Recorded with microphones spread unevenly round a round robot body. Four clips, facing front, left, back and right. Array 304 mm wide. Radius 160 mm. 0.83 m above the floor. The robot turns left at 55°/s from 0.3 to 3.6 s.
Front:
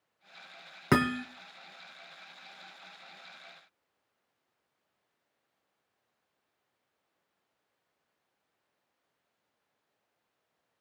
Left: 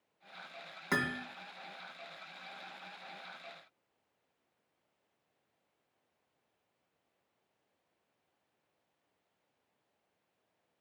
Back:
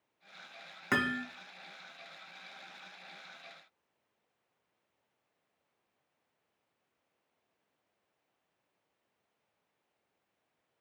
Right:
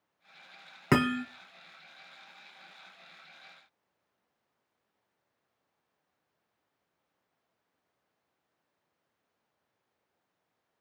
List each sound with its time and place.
0.9 s hammering: 45° right, 1.0 m; by 1.2 s 65° right, 1.0 m